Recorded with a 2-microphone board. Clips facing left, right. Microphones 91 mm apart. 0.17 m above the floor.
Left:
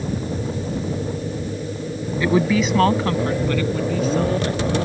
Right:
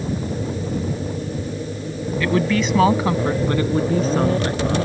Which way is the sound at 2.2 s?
20° left (ahead or behind).